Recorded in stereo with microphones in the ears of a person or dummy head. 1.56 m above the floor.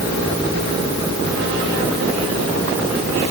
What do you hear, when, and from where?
Only background noise.